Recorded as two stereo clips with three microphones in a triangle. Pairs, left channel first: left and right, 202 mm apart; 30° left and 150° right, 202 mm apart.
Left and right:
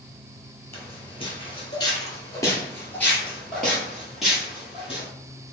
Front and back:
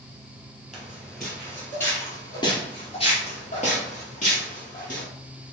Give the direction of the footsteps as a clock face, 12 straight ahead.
8 o'clock.